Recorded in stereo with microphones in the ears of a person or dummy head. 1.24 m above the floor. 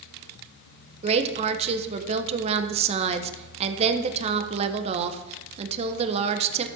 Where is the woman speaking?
35° right (ahead or behind), 1.0 m.